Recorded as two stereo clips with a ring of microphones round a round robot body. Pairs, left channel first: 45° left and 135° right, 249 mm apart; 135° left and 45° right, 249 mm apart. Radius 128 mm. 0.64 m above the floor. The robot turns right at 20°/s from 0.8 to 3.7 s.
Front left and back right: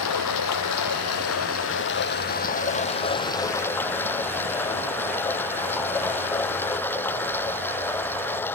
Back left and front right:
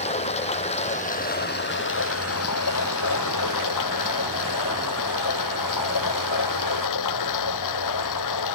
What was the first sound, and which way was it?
Running water, 70° left.